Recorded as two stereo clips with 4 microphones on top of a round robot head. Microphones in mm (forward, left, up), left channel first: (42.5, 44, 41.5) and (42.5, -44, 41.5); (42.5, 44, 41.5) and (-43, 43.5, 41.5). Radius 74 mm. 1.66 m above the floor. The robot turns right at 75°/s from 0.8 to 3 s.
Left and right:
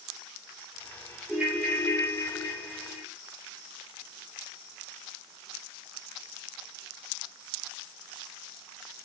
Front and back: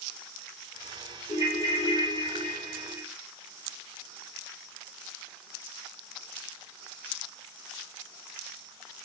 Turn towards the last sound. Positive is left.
turn(degrees=110)